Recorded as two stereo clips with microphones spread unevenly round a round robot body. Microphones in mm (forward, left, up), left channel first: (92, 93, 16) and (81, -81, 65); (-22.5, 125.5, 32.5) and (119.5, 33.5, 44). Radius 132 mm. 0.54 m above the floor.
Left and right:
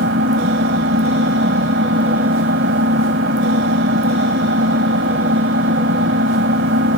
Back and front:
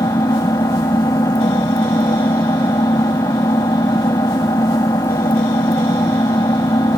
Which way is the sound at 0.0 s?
135° right.